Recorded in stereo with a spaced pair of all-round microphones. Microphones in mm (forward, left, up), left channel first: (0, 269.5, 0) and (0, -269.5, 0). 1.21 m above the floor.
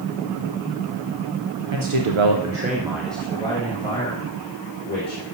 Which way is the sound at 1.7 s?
55° right (ahead or behind).